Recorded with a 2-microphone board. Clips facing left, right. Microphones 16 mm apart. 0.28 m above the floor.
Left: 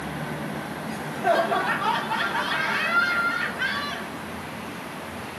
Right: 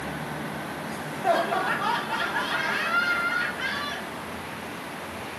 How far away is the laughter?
About 1.5 m.